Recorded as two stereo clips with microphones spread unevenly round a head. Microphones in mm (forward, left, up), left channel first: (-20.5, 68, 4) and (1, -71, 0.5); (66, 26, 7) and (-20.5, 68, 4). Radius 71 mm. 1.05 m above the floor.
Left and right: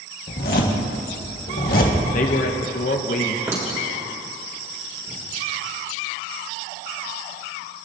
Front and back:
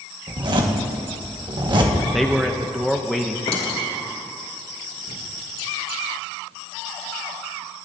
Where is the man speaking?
65° left, 0.8 m.